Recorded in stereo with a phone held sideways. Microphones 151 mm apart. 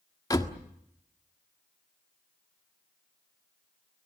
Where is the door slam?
25° left (ahead or behind), 1.5 m.